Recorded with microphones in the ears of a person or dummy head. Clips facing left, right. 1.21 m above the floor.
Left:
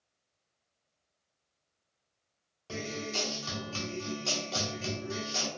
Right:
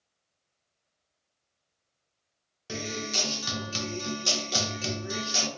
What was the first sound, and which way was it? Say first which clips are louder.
A guitar: right 2 dB; 20° right (ahead or behind).